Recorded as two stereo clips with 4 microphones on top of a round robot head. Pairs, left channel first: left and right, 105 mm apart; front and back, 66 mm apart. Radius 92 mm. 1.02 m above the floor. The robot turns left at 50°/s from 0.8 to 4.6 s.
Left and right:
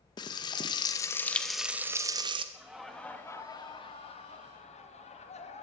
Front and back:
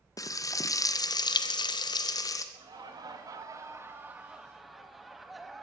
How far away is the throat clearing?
I don't hear throat clearing.